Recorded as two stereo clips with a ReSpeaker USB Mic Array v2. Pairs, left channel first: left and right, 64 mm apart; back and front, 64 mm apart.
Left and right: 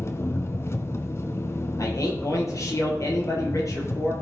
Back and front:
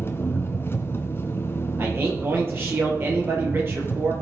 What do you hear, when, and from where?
0.0 s an engine running: 130° left, 1.3 m
1.8 s a man speaking: 50° left, 5 m